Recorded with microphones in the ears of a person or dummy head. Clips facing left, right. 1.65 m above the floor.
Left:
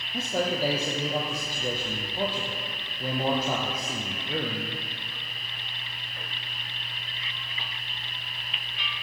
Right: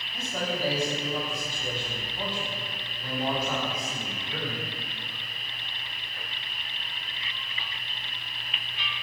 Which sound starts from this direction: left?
A man speaking, at 0.1 s.